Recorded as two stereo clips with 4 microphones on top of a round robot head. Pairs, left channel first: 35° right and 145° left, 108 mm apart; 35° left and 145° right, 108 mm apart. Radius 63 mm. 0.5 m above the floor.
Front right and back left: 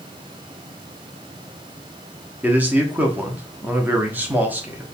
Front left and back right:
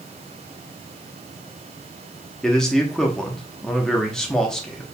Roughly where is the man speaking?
Left.